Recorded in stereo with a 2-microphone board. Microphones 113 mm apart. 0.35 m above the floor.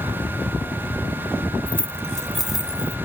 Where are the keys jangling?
15° left (ahead or behind); by 3.0 s 10° right (ahead or behind).